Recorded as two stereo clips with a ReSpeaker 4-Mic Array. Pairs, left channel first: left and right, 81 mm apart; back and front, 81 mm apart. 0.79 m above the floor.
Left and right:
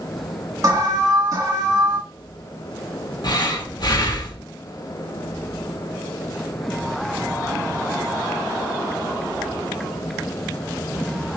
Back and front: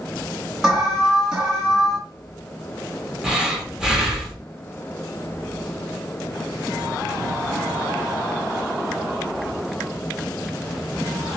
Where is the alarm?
80° right, 1.8 m.